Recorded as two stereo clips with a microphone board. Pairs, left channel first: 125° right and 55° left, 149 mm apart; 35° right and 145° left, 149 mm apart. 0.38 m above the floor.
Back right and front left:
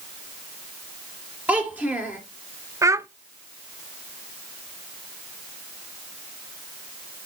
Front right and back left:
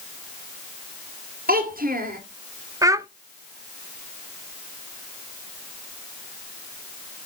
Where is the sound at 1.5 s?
135° left, 3 m.